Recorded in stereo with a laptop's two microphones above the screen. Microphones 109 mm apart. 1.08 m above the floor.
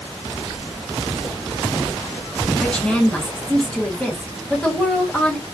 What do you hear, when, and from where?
2.6 s a woman speaking: 10° left (ahead or behind), 1.2 m